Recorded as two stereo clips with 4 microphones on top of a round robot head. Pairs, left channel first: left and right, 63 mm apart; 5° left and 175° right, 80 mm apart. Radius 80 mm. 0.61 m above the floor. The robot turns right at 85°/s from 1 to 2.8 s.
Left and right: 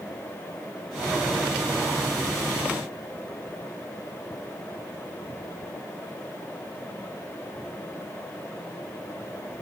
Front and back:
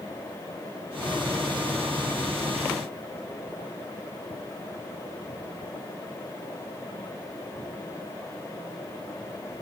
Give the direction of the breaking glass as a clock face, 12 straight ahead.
I don't hear breaking glass.